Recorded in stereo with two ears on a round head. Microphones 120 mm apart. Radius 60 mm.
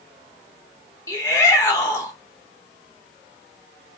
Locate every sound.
1.1 s a shout: 20° left (ahead or behind), 1.0 m